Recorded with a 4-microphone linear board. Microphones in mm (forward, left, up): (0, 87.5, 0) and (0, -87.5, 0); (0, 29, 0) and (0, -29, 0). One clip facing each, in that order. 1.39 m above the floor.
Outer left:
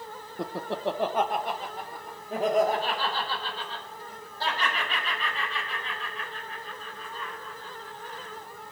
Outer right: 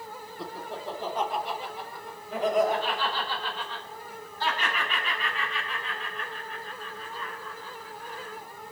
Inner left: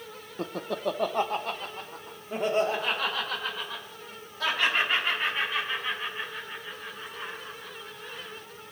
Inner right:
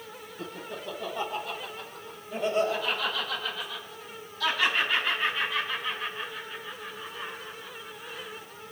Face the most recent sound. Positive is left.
turn(degrees=35)  # may be behind; listen again after turning